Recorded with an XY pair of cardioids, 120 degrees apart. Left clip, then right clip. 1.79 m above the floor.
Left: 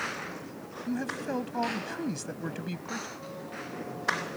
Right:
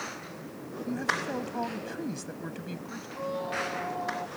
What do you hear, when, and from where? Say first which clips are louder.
0.9 s a man speaking: right 4 dB; 15° left; by 3.1 s 25° left
3.2 s a squeak: right 9 dB; 50° right